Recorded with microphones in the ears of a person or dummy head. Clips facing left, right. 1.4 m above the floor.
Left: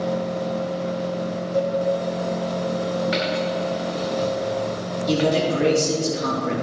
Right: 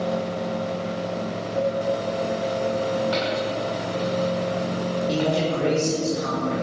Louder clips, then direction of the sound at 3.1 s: Left 1 dB; 35° left (ahead or behind).